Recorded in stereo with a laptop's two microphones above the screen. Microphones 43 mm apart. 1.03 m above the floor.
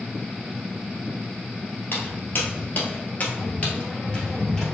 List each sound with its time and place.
1.9 s footsteps: 55° left (ahead or behind), 1.6 m; by 4.7 s 10° left (ahead or behind), 1.7 m